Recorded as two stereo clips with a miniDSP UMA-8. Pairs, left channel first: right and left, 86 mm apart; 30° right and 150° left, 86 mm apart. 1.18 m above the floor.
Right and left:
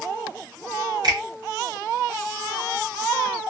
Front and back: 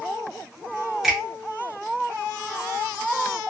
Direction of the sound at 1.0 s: 65° left.